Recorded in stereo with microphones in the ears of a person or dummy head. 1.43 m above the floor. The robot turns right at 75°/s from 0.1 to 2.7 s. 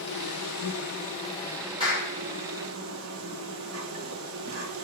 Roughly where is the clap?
Right.